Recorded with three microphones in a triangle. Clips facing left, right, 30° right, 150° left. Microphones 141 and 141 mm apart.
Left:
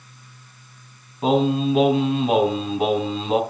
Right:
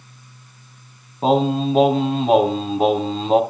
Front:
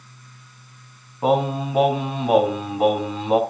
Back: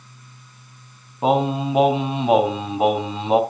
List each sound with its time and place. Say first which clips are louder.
1.2 s singing: right 1 dB, back 1 dB; 140° right, 3 m